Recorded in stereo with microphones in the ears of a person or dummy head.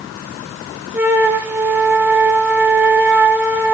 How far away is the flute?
About 0.7 m.